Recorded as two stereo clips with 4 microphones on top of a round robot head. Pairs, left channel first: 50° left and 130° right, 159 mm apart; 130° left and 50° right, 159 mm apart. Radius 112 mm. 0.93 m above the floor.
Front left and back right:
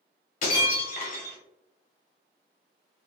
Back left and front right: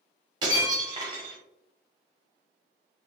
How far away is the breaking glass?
About 0.8 m.